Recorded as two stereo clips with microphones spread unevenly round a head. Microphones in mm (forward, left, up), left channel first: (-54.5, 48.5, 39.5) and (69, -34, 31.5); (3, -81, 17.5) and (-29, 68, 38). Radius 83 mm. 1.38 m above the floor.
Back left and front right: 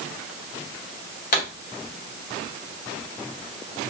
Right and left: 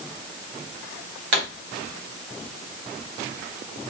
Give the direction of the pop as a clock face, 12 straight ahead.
8 o'clock.